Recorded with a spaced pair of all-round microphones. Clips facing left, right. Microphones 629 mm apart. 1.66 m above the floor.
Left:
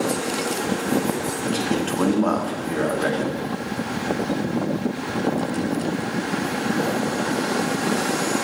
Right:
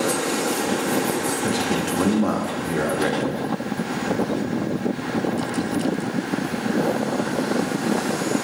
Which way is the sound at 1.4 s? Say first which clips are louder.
Left 3 dB; 50° right (ahead or behind).